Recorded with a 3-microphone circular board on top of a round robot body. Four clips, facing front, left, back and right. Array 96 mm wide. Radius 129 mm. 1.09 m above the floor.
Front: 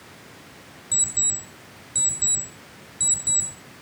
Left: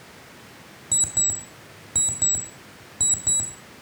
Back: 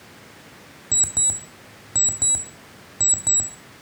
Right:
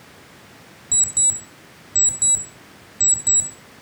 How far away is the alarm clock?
About 2 m.